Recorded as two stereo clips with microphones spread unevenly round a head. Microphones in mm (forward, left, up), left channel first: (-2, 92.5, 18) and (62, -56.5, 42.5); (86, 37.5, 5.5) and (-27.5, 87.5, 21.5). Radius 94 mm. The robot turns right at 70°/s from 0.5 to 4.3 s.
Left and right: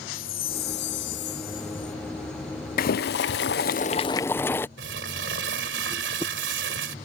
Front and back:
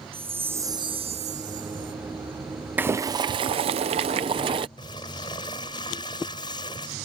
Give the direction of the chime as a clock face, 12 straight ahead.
9 o'clock.